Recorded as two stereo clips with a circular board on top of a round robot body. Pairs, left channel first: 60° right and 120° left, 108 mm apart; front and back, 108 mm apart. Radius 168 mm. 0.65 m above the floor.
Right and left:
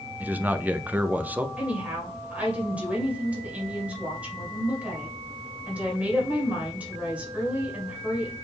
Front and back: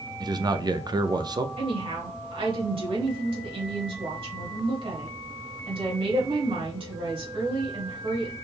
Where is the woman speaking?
165° right, 2 m.